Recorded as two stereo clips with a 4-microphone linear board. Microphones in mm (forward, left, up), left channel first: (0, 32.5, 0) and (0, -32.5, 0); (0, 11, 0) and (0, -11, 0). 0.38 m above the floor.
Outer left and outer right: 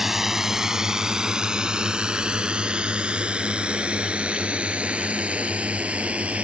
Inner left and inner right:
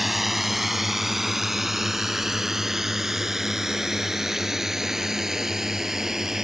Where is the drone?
5° right (ahead or behind); by 6.5 s 20° right (ahead or behind).